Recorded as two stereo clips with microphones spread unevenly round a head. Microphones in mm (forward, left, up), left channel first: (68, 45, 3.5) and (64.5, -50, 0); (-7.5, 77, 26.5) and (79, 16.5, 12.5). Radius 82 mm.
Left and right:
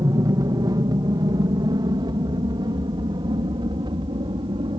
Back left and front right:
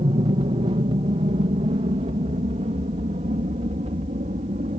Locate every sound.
0.0 s an aircraft: 55° right; by 4.8 s 65° right